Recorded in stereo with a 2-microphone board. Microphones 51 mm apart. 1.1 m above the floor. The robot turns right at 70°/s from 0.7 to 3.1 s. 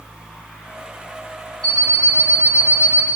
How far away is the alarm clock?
About 1.4 m.